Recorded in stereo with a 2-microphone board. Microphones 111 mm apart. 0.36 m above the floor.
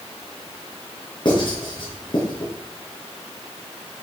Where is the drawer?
I don't hear a drawer.